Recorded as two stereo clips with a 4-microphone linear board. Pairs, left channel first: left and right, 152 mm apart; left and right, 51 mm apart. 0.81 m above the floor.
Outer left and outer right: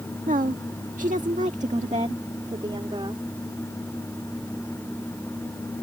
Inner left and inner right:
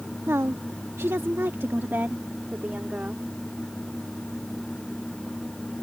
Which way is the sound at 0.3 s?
60° right (ahead or behind).